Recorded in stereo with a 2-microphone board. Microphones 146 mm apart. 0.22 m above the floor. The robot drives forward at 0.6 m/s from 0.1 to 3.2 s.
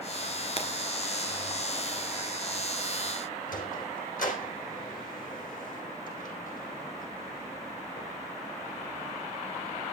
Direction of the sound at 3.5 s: 65° left (ahead or behind).